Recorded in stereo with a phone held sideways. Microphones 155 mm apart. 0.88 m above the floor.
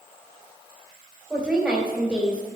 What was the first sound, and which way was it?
A woman speaking, centre (ahead or behind).